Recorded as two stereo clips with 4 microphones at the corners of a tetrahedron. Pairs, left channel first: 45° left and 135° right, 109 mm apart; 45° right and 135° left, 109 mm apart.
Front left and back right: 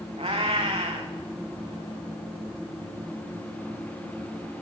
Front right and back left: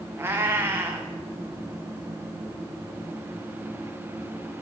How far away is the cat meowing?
About 1.9 m.